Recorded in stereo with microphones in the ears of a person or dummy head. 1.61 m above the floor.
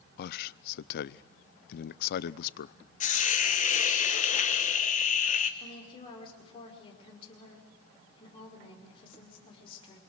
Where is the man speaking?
65° left (ahead or behind), 0.5 m.